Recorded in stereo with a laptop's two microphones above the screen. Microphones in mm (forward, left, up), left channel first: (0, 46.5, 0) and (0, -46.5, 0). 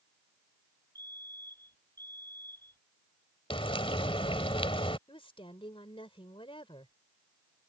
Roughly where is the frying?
Left.